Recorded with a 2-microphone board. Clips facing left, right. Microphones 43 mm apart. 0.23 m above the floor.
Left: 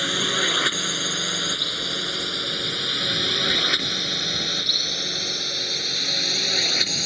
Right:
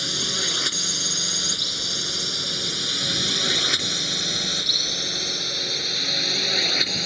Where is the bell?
I don't hear a bell.